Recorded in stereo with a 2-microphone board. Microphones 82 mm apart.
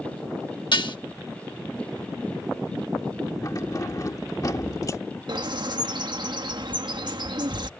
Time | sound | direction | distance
0.7 | dishes clattering | 65° left (ahead or behind) | ?
3.4 | keys jangling | 40° left (ahead or behind) | ?
5.3 | a bird | 60° right (ahead or behind) | ?